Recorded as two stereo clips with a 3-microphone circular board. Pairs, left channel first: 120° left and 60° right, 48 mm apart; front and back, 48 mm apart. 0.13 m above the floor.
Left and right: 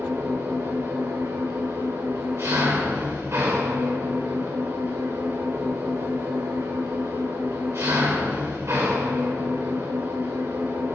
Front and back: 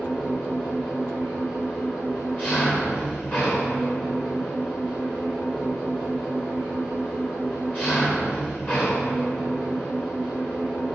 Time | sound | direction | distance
0.0 | an engine running | 50° right | 3 m